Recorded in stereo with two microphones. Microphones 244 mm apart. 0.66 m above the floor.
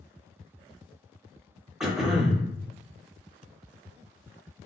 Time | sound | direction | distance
1.8 | throat clearing | centre (ahead or behind) | 0.6 m